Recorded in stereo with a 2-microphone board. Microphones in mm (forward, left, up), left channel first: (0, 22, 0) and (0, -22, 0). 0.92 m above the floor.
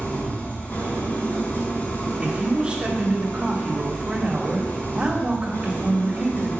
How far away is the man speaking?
About 2 m.